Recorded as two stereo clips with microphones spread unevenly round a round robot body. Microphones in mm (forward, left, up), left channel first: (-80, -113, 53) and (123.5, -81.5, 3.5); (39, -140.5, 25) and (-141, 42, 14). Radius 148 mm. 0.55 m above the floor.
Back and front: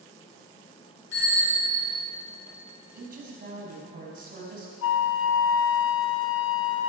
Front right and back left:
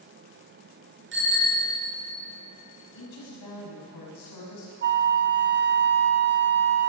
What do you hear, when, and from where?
1.1 s a bicycle bell: 175° left, 6 m
2.9 s a woman speaking: 35° right, 4.5 m
4.8 s a flute: 165° left, 0.7 m